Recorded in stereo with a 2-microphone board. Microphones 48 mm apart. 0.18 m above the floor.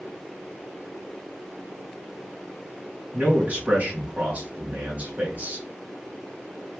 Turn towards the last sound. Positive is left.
turn(degrees=-35)  # may be behind; listen again after turning